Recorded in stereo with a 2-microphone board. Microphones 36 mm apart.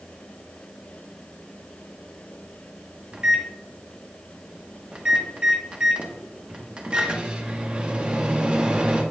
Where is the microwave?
30° right (ahead or behind), 0.9 m.